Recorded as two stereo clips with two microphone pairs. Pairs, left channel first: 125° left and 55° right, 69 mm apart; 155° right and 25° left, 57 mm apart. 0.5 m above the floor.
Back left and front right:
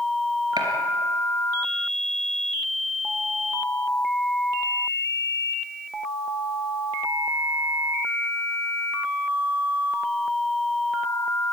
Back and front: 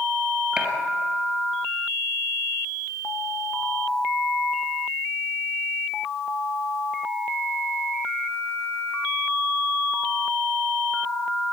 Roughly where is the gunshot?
Ahead right.